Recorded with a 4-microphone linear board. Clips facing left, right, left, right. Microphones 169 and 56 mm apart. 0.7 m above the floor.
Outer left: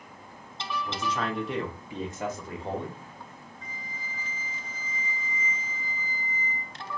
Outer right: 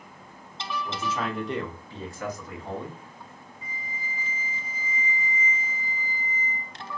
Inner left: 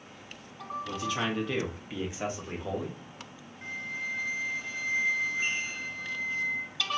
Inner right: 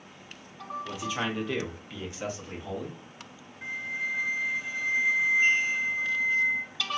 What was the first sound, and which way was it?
A man speaking, 10° right (ahead or behind).